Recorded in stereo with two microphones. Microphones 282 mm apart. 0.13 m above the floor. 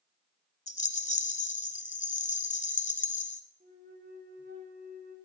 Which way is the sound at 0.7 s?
25° left (ahead or behind).